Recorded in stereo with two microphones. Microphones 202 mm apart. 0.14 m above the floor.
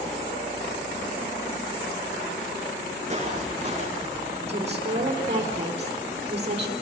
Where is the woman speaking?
35° right (ahead or behind), 4 m.